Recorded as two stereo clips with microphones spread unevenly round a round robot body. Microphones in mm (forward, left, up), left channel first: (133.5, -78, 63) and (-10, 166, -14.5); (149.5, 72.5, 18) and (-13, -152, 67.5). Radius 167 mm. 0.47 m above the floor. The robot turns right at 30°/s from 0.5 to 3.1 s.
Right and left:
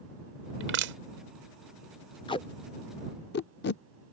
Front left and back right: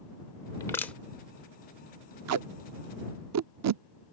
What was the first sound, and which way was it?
Crushing, 120° left.